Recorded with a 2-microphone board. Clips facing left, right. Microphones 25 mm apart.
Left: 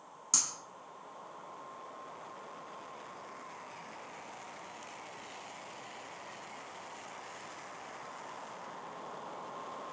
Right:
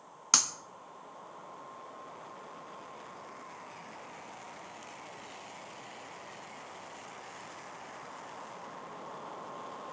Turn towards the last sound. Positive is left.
turn(degrees=-55)  # may be behind; listen again after turning